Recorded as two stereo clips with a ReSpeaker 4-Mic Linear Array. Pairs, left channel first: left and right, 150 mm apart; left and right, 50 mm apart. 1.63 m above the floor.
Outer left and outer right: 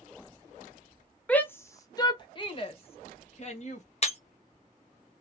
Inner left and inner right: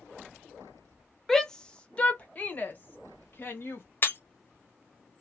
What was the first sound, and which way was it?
A shout, 10° left (ahead or behind).